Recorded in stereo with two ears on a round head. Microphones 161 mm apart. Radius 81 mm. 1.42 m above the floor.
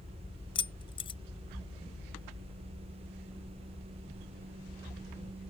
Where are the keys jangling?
30° left (ahead or behind).